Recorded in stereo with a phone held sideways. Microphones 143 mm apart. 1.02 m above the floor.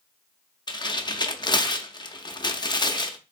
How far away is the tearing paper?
About 0.5 m.